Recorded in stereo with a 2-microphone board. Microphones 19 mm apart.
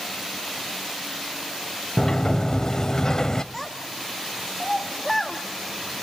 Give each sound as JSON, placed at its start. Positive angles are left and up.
{"t": 2.0, "sound": "a sliding door", "side_deg": 25, "distance_m": 0.6}
{"t": 3.5, "sound": "a child speaking", "side_deg": 15, "distance_m": 0.9}